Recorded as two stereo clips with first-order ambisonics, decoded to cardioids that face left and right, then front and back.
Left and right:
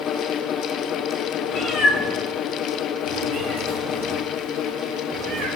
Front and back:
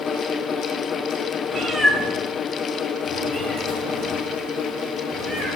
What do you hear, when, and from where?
1.5 s a cat meowing: 105° left, 0.7 m; by 5.5 s 65° right, 3.5 m